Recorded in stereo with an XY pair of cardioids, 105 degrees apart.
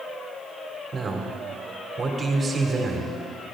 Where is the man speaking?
35° right, 2.5 m.